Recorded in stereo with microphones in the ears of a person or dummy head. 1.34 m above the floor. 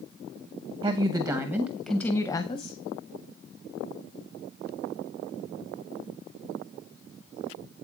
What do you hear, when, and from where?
0.8 s a woman speaking: 30° right (ahead or behind), 1.1 m; by 2.7 s 35° left (ahead or behind), 0.8 m